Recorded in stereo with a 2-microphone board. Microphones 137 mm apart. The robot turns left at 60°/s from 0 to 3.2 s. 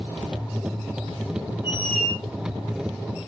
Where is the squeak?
145° left, 2.5 m; by 2.2 s 115° left, 2.5 m.